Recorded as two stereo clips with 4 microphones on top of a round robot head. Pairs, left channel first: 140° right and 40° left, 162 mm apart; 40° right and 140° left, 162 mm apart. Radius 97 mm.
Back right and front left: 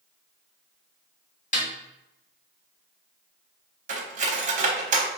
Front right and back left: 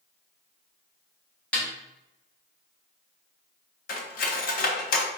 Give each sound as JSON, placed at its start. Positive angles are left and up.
{"t": 1.5, "sound": "a snare drum", "azimuth_deg": -120, "distance_m": 1.6}
{"t": 3.9, "sound": "cutlery clinking", "azimuth_deg": -5, "distance_m": 0.9}